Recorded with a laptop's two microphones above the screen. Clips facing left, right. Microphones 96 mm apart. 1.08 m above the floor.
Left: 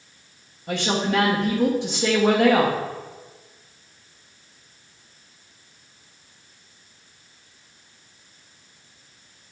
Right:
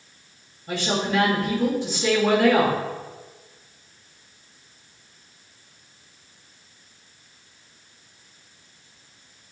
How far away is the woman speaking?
About 1.3 m.